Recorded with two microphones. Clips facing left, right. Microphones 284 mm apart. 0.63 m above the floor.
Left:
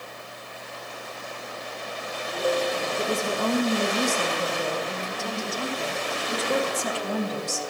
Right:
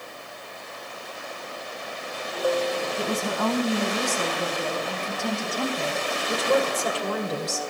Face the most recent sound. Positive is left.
turn(degrees=-70)  # may be behind; listen again after turning